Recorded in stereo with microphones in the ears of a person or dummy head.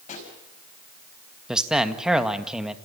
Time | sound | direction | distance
0.1 | a pop | 35° left (ahead or behind) | 5 m
1.5 | a man speaking | 5° right (ahead or behind) | 1.7 m